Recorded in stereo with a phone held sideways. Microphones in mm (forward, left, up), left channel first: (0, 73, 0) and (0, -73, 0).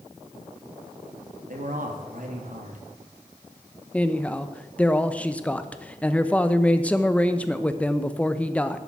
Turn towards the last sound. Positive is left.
turn(degrees=10)  # may be behind; listen again after turning